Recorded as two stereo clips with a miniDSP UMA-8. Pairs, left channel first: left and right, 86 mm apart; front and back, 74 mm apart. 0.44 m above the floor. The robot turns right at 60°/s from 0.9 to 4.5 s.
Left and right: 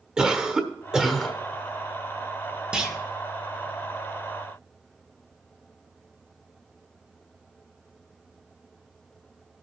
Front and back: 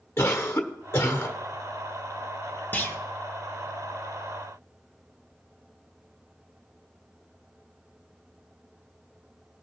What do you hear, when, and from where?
0.2 s a cough: 20° right, 1.2 m; by 1.4 s 10° left, 1.2 m
2.7 s a clunk: 25° right, 1.2 m; by 3.0 s 10° right, 1.2 m